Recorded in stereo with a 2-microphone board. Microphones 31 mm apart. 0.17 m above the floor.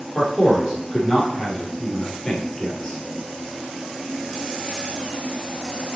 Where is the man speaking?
15° left (ahead or behind), 3.5 m.